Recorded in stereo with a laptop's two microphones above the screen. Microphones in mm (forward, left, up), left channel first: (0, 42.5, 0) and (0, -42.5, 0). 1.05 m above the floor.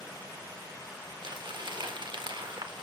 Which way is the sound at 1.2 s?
70° right (ahead or behind).